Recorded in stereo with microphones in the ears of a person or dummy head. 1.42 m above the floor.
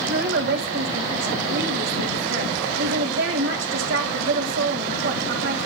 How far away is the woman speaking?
About 3 m.